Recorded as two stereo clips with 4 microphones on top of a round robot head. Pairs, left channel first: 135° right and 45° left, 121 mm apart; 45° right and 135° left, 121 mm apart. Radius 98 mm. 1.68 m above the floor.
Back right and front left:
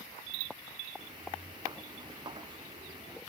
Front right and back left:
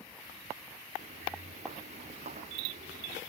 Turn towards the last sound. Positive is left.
turn(degrees=100)